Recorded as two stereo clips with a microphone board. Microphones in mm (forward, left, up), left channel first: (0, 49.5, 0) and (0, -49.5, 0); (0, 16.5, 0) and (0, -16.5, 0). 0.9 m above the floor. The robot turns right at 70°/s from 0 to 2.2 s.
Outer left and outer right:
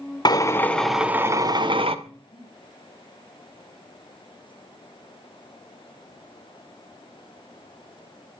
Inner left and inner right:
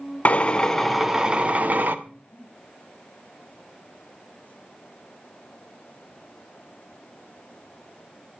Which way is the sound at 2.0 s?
75° left (ahead or behind).